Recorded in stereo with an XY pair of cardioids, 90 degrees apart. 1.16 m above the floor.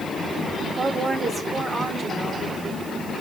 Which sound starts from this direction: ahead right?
A woman speaking, at 0.8 s.